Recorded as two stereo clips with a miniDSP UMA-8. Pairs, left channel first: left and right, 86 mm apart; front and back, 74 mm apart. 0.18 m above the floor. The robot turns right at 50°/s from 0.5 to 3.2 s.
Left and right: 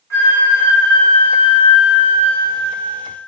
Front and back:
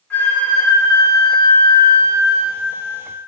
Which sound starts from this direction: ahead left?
A flute, at 0.1 s.